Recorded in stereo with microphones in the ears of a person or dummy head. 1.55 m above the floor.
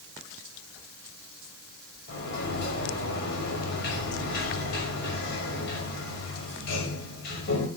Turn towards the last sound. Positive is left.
turn(degrees=60)  # may be behind; listen again after turning